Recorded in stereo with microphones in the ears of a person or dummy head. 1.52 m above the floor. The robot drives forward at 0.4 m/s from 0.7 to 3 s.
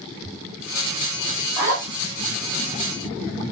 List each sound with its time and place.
1.6 s a zipper: 15° right (ahead or behind), 1.4 m